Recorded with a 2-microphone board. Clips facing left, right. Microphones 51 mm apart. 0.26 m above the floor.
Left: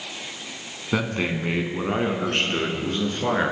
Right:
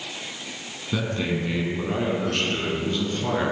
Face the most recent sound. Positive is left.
turn(degrees=30)  # may be behind; listen again after turning